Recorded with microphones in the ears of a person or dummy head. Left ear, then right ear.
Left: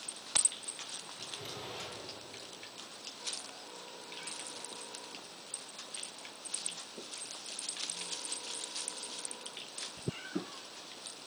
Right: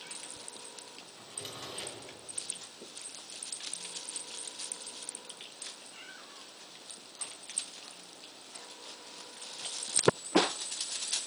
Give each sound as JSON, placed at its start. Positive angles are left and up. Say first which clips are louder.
{"t": 1.2, "sound": "a drawer", "louder": "right 2 dB", "side_deg": -35, "distance_m": 4.0}